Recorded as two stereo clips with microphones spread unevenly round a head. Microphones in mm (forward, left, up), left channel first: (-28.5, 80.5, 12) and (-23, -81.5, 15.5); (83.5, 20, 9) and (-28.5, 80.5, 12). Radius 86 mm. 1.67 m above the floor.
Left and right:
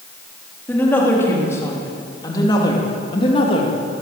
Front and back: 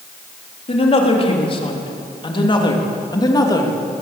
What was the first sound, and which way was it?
A woman speaking, 10° left.